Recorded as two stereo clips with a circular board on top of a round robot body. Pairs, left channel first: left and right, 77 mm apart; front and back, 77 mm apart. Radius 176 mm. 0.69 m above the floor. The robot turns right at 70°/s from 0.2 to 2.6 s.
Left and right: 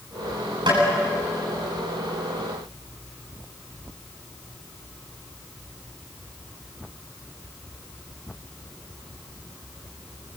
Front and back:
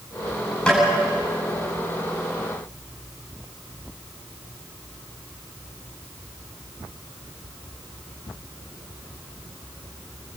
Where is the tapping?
75° right, 10 m; by 0.8 s 65° right, 10 m.